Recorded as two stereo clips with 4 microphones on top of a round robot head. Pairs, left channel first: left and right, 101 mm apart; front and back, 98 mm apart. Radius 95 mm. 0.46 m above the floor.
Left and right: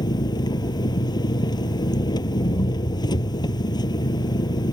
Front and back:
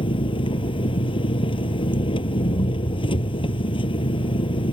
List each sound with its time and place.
0.0 s an engine running: 40° left